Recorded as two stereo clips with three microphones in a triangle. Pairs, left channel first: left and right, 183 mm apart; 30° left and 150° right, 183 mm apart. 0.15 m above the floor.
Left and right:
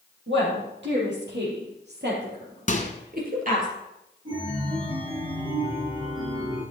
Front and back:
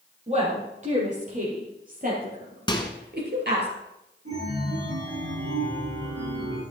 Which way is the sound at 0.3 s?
95° right.